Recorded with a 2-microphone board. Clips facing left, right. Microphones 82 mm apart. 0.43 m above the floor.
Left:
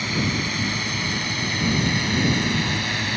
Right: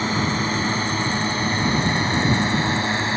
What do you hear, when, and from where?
0.0 s a drone: 35° right (ahead or behind); by 3.2 s 30° right (ahead or behind)